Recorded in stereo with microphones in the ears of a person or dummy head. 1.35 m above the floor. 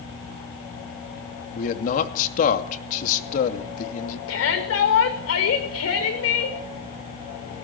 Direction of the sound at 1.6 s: 50° left (ahead or behind).